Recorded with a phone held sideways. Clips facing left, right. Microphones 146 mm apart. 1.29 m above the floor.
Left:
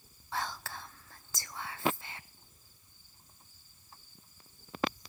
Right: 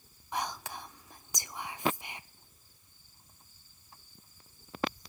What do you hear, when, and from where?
0.3 s whispering: 15° right (ahead or behind), 0.6 m